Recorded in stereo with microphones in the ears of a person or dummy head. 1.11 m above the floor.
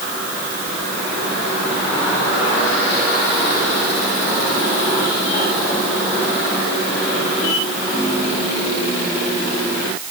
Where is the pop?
I don't hear a pop.